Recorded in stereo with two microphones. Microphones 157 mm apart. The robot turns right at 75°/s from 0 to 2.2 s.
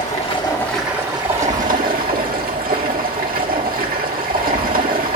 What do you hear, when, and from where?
0.0 s running water: 120° left, 1.4 m; by 5.2 s 75° right, 1.4 m